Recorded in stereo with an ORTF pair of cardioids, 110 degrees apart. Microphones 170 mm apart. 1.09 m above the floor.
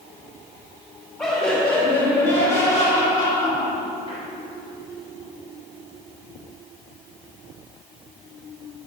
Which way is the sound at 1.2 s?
15° left.